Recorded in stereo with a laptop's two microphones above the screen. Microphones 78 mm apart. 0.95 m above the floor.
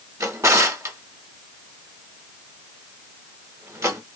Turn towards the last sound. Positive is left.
turn(degrees=-45)  # may be behind; listen again after turning